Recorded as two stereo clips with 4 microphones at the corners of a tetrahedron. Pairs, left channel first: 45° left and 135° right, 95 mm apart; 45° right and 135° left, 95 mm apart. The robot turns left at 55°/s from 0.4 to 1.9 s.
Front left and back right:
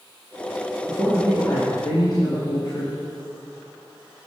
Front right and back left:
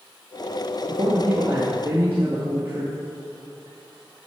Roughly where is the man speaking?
Behind left.